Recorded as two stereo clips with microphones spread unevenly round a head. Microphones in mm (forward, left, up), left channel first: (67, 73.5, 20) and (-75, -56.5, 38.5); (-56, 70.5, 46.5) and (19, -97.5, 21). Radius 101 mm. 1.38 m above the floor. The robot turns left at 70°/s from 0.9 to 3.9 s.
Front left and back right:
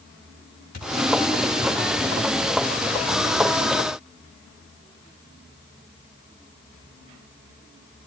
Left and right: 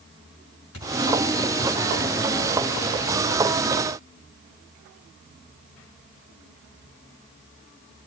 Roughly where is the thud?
Left.